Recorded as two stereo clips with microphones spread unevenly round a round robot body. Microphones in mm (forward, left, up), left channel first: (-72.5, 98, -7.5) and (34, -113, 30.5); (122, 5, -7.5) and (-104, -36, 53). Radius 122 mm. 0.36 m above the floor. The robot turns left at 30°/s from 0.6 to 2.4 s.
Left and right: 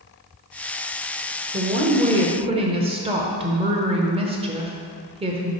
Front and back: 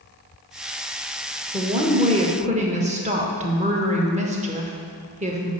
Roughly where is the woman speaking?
Right.